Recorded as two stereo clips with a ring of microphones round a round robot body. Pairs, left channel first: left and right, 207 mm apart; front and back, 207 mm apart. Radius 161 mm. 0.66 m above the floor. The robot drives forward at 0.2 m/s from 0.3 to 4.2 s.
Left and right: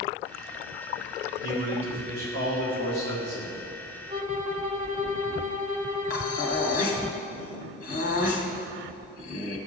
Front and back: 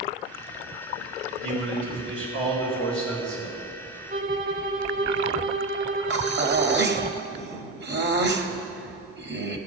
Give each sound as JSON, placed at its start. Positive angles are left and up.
{"t": 1.4, "sound": "a man speaking", "azimuth_deg": -145, "distance_m": 3.5}
{"t": 4.1, "sound": "a violin", "azimuth_deg": -145, "distance_m": 0.7}
{"t": 6.1, "sound": "breathing", "azimuth_deg": 145, "distance_m": 1.1}